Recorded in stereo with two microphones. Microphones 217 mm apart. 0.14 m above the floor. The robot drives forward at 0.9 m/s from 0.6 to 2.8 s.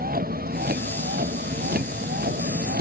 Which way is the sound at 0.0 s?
45° right (ahead or behind).